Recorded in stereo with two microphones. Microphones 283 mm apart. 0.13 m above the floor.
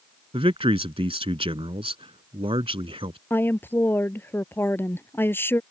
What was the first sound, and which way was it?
A man speaking, 20° right (ahead or behind).